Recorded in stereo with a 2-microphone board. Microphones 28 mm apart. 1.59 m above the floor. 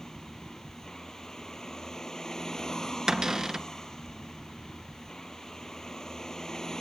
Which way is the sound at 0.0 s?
20° left (ahead or behind).